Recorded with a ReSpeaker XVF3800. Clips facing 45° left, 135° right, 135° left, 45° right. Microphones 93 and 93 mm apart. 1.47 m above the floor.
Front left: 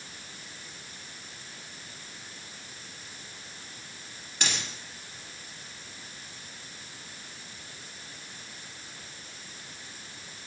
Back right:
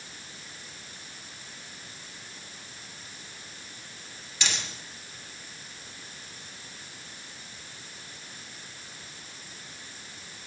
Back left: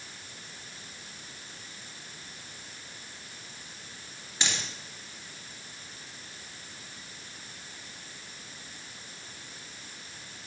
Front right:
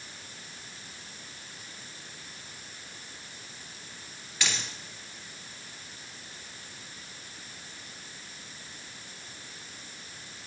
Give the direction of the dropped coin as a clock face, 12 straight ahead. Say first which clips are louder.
Even, even; 10 o'clock.